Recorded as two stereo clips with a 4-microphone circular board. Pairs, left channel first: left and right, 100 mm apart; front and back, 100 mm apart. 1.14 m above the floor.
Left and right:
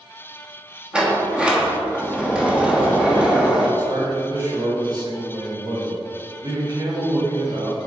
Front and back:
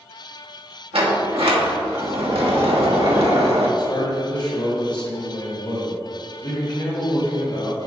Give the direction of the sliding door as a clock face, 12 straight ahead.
6 o'clock.